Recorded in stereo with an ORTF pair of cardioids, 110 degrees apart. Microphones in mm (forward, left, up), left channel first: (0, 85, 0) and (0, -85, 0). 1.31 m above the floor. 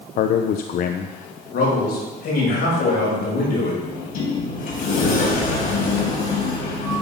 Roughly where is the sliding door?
Ahead left.